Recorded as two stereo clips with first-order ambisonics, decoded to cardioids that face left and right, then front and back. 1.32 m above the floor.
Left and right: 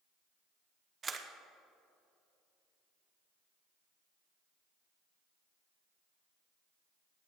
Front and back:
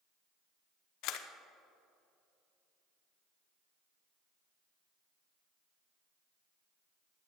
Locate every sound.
1.0 s a camera shutter: 20° right, 0.7 m